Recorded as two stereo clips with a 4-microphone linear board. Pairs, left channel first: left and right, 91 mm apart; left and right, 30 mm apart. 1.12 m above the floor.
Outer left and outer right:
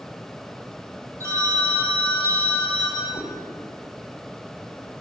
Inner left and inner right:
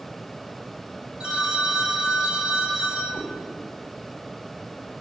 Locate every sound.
1.2 s a phone ringing: 30° right (ahead or behind), 4 m
3.1 s a cat meowing: 55° left (ahead or behind), 1.8 m